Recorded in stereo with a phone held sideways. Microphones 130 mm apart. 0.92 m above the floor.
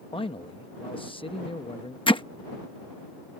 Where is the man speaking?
40° left (ahead or behind).